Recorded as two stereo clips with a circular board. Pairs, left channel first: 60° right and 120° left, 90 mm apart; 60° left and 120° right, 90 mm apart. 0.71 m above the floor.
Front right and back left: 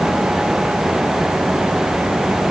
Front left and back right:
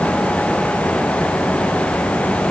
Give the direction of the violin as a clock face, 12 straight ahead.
I don't hear a violin.